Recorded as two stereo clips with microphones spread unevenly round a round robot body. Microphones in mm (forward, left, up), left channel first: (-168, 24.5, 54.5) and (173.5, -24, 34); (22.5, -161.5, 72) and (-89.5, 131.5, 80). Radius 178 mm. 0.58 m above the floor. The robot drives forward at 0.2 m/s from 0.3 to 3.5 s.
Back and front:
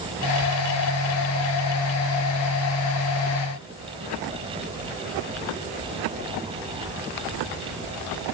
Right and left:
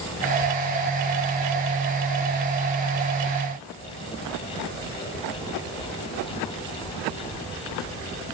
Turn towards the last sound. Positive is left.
No sound to turn to.